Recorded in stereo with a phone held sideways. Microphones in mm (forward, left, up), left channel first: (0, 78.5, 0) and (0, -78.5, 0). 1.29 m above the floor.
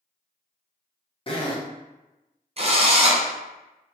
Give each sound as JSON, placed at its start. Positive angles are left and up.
{"t": 1.3, "sound": "a zipper", "side_deg": 35, "distance_m": 0.5}
{"t": 2.6, "sound": "a drill", "side_deg": -40, "distance_m": 0.5}